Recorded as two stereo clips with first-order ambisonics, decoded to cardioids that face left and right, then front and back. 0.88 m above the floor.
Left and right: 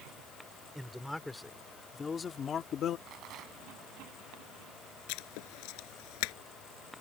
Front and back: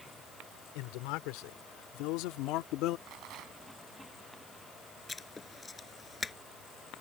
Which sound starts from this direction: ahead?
A man speaking, at 0.8 s.